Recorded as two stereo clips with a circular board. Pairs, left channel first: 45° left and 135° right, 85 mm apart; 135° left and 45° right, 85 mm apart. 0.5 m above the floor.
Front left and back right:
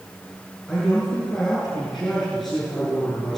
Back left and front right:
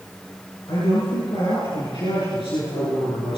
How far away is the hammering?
I don't hear hammering.